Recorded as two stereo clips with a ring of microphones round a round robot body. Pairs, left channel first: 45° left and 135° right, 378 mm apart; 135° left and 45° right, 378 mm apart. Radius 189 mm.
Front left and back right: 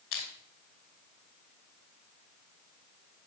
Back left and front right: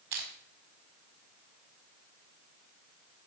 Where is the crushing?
10° right, 5 m.